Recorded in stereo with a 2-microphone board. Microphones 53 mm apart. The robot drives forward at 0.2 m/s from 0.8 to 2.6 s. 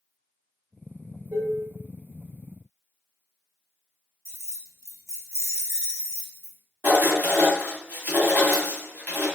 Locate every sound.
1.3 s dishes clattering: 25° right (ahead or behind), 0.8 m
4.2 s keys jangling: 60° right (ahead or behind), 0.6 m
6.8 s writing: 40° right (ahead or behind), 1.1 m